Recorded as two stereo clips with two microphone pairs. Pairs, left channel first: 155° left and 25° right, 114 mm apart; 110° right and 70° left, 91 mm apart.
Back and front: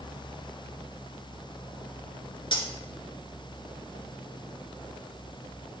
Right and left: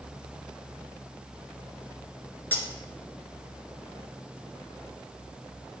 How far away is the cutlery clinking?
About 1.1 m.